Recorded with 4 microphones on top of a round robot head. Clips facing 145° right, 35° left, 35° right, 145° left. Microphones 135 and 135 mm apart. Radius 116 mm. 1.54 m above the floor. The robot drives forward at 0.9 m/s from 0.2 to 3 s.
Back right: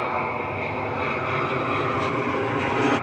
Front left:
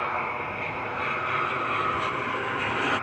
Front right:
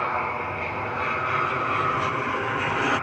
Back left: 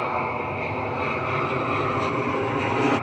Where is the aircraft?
170° right.